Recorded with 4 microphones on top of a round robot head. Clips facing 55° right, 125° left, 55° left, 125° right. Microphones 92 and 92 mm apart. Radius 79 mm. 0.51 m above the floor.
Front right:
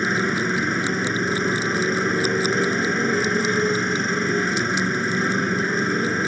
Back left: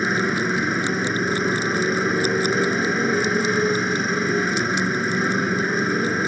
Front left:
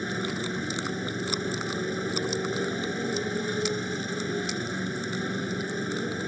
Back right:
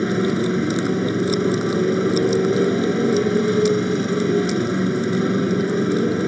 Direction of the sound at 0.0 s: 145° right.